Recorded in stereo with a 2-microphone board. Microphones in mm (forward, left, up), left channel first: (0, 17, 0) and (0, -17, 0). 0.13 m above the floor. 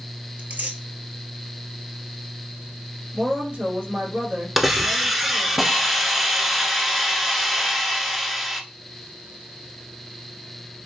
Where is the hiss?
5° right (ahead or behind), 0.7 m.